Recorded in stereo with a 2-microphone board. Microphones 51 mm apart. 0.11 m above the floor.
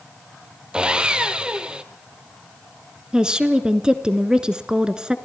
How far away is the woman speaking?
About 1.1 m.